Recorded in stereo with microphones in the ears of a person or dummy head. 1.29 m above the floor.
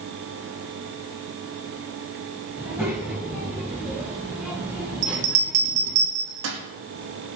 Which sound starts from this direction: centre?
A child speaking, at 2.6 s.